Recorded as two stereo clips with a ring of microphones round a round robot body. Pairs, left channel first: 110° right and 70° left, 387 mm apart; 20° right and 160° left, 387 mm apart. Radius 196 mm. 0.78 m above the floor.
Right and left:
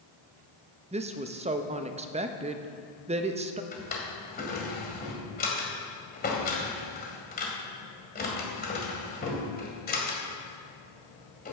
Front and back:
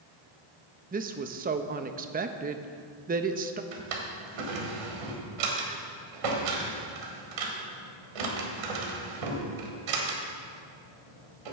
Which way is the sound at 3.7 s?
Straight behind.